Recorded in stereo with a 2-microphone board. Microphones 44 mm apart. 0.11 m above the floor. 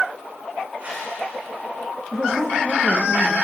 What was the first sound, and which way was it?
A whoosh, 30° right (ahead or behind).